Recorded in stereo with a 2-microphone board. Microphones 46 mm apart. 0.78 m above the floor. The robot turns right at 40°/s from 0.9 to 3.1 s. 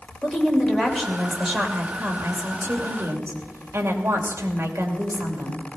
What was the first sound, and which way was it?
A woman speaking, 165° left.